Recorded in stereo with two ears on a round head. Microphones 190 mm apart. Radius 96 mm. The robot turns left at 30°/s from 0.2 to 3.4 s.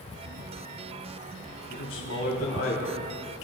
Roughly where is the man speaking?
Left.